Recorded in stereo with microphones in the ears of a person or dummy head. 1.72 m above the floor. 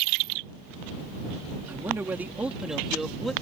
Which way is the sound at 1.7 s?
10° right (ahead or behind).